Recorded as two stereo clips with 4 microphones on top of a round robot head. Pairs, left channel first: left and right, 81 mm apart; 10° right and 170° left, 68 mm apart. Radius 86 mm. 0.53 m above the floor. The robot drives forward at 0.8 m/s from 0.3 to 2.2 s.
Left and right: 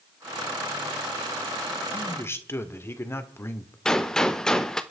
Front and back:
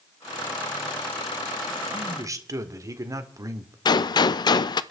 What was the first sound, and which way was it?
A man speaking, 140° left.